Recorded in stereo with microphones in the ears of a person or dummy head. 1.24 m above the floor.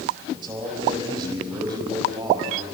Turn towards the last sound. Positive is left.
turn(degrees=-25)  # may be behind; listen again after turning